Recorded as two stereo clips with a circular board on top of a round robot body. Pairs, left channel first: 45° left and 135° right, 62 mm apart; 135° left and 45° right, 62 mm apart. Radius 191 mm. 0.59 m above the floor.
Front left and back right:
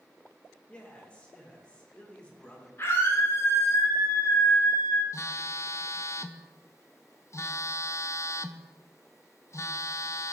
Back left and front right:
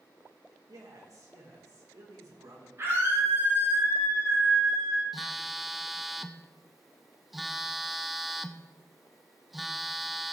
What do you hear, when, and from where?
0.7 s a man speaking: 25° right, 3 m
2.8 s a scream: 5° right, 4 m
5.1 s a phone buzzing: 40° left, 0.7 m